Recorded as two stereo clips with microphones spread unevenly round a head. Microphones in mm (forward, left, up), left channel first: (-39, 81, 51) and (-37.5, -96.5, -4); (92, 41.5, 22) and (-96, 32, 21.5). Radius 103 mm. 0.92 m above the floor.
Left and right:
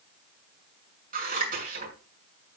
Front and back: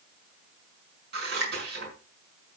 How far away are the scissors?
About 6 m.